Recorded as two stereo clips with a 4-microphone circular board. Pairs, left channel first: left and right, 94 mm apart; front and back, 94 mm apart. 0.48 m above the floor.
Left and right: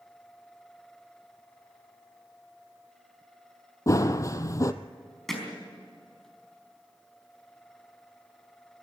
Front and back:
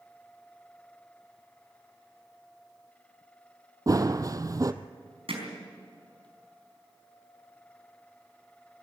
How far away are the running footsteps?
About 0.8 m.